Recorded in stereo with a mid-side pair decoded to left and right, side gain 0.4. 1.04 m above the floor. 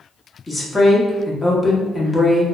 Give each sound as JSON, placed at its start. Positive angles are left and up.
{"t": 0.5, "sound": "a woman speaking", "azimuth_deg": 25, "distance_m": 1.4}